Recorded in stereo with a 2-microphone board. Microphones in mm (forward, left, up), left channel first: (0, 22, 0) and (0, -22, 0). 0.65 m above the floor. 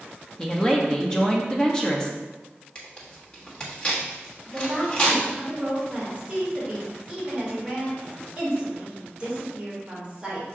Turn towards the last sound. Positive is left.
turn(degrees=-25)  # may be behind; listen again after turning